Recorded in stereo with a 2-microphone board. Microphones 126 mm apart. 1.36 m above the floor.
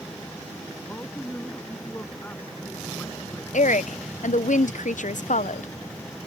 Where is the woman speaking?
75° left (ahead or behind).